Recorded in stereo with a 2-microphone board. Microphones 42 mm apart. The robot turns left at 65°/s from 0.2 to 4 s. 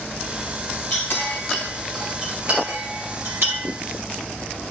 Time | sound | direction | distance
0.9 | a clink | 65° left (ahead or behind) | 2.5 m